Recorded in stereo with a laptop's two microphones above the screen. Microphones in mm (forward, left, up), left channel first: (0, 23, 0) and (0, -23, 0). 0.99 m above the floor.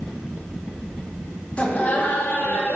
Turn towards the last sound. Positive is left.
turn(degrees=55)  # may be behind; listen again after turning